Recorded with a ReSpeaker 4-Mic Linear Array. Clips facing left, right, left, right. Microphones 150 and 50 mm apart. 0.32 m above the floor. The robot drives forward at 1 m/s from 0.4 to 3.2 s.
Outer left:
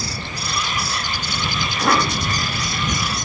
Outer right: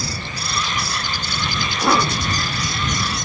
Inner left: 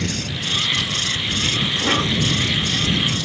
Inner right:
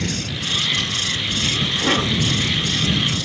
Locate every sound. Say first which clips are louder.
1.6 s a cough: outer right 1 dB, inner right 1 dB; 5° right (ahead or behind), 2.5 m